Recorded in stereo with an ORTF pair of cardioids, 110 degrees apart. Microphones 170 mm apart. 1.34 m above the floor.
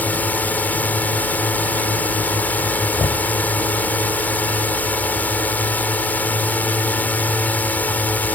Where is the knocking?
30° left.